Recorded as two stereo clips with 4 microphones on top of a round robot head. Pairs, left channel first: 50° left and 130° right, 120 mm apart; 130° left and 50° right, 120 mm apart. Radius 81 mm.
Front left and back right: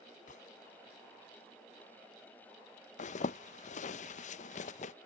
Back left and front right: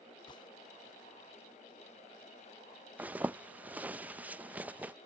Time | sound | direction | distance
0.3 | a gunshot | 75° left | ?
3.0 | a zipper | 25° left | ?